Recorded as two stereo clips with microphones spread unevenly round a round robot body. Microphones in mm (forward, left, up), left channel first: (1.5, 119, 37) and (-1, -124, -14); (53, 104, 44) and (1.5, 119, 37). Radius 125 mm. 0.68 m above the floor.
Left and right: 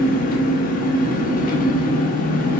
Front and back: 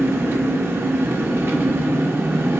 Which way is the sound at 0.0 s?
150° left.